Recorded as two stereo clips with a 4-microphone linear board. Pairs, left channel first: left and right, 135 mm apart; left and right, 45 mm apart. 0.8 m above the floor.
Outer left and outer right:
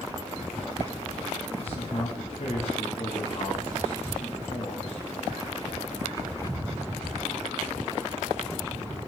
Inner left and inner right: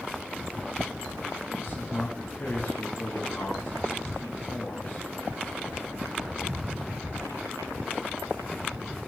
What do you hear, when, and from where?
1.6 s a man speaking: 50° left (ahead or behind), 1.0 m